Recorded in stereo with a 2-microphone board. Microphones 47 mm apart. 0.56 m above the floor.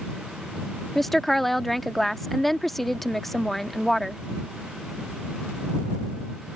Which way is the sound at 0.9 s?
5° left (ahead or behind).